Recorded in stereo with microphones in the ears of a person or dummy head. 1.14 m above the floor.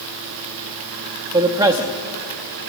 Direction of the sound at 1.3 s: 25° right (ahead or behind).